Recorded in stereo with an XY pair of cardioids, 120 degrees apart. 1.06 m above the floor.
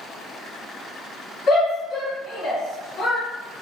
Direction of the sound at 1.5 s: 55° left.